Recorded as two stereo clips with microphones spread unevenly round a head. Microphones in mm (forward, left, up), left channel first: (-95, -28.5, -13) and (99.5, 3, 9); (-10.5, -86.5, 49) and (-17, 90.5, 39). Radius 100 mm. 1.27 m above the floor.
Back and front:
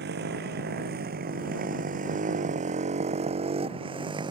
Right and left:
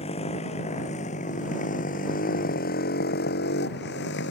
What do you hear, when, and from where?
0.0 s a motorcycle: 30° right; by 4.3 s 60° right